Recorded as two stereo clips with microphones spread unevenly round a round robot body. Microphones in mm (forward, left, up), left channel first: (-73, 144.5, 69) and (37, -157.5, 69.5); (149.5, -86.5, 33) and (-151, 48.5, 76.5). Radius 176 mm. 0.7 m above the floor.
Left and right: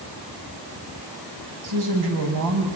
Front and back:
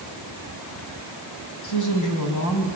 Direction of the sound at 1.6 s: 50° right.